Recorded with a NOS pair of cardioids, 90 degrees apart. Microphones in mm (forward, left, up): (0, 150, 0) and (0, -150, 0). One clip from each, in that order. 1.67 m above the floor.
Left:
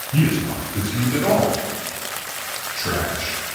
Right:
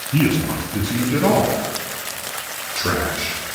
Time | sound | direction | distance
0.1 | a man speaking | 30° right | 0.9 m